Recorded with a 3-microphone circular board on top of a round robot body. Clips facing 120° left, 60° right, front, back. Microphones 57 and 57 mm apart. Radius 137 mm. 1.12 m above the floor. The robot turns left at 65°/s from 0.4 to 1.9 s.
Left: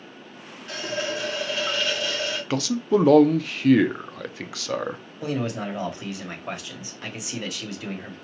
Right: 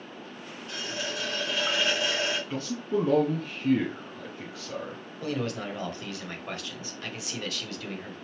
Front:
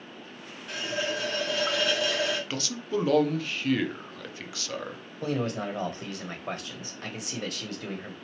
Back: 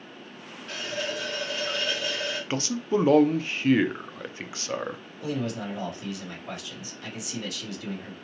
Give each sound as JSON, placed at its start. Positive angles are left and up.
{"t": 0.7, "sound": "a running tap", "azimuth_deg": 85, "distance_m": 0.9}
{"t": 2.5, "sound": "a man speaking", "azimuth_deg": 115, "distance_m": 0.6}
{"t": 5.2, "sound": "a man speaking", "azimuth_deg": 45, "distance_m": 1.1}